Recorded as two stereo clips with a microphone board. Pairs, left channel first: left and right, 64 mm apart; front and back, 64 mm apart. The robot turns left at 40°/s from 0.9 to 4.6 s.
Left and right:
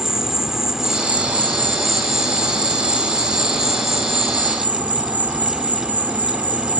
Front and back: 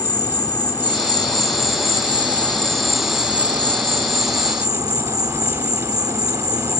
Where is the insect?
10° right; by 6.8 s 155° right.